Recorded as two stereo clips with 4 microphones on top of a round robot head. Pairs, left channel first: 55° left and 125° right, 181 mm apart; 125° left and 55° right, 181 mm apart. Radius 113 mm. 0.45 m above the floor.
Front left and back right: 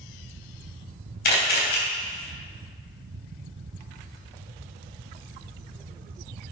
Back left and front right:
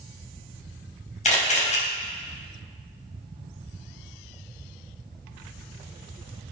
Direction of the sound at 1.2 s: 80° left.